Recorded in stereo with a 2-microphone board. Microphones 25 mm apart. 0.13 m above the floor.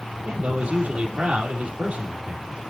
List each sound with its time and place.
0.3 s a man speaking: 55° right (ahead or behind), 3.5 m